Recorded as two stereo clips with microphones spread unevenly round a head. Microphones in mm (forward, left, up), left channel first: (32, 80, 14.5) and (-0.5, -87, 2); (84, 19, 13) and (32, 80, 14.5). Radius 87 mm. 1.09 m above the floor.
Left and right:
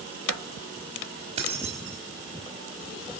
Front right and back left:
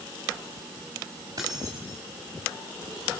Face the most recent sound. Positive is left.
turn(degrees=-160)